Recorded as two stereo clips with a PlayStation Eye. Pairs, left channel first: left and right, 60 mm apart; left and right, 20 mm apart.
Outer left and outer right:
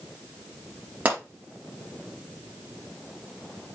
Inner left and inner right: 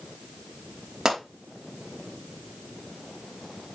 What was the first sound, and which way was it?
A pop, 25° right (ahead or behind).